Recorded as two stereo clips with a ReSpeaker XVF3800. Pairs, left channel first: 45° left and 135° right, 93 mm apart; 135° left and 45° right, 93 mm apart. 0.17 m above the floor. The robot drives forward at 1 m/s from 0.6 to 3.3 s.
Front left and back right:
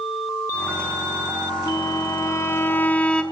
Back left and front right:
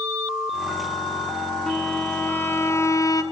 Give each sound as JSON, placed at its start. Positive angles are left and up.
{"t": 1.7, "sound": "a violin", "azimuth_deg": 55, "distance_m": 2.0}